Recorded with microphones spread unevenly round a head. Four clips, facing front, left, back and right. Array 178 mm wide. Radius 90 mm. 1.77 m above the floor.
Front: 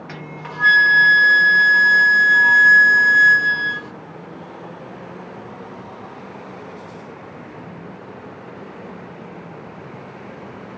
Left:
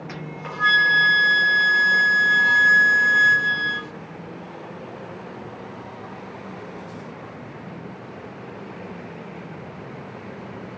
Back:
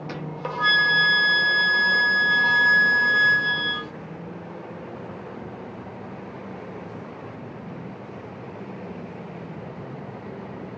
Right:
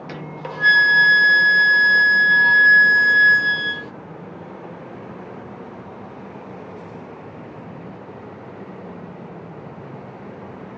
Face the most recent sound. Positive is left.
turn(degrees=-135)